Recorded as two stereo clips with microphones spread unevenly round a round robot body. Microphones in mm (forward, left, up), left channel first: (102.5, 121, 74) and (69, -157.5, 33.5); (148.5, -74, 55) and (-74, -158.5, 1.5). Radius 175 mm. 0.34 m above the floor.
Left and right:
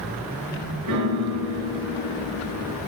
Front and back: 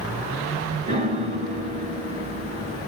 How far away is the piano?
About 2.5 m.